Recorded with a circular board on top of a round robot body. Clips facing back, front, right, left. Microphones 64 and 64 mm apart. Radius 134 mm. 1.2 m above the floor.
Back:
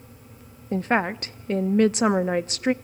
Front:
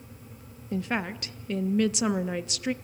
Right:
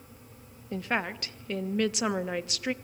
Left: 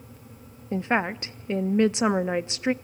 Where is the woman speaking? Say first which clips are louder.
Back 7 dB, left 6 dB; 145° left, 0.6 m.